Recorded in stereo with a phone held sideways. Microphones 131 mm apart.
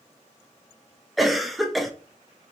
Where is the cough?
Centre (ahead or behind), 0.7 m.